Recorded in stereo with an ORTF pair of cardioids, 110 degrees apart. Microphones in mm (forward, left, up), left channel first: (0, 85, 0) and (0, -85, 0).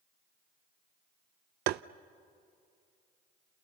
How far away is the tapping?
About 0.5 m.